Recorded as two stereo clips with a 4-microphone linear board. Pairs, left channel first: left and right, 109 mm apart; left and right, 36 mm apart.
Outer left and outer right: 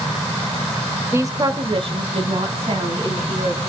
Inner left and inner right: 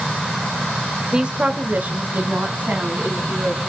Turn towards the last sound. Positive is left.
turn(degrees=-70)  # may be behind; listen again after turning